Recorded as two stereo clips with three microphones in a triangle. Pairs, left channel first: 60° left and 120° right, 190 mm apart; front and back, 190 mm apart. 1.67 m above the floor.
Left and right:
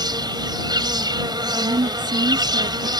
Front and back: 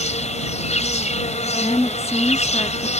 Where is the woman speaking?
75° right.